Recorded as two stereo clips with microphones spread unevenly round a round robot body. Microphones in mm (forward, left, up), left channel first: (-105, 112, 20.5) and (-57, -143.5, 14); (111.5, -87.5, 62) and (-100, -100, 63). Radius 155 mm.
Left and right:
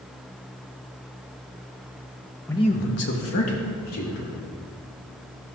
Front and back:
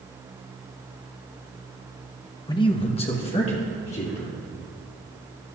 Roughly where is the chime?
I don't hear a chime.